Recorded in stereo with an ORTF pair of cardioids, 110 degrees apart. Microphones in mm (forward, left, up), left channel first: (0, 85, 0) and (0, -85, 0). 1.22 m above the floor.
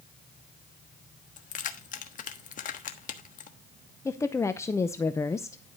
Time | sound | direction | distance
1.4 | keys jangling | 50° left | 1.3 m
4.0 | a woman speaking | 15° left | 0.7 m